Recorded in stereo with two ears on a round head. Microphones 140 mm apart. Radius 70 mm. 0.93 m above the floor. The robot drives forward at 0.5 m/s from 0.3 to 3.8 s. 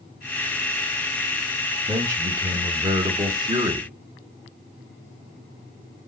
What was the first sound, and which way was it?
A man speaking, 15° right (ahead or behind).